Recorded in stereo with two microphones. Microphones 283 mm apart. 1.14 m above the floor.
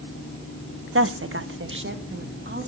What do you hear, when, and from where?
0.9 s a woman speaking: 50° right (ahead or behind), 0.9 m; by 2.7 s 40° right (ahead or behind), 3 m